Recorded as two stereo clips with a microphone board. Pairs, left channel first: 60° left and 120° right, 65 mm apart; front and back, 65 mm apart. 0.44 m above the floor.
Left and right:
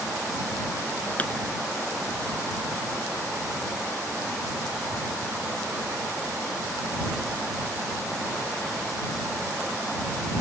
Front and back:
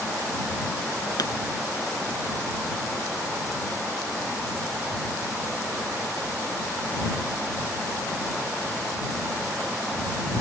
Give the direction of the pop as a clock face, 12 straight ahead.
12 o'clock.